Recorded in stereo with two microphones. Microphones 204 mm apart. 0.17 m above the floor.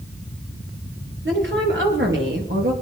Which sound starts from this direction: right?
A woman speaking, at 1.2 s.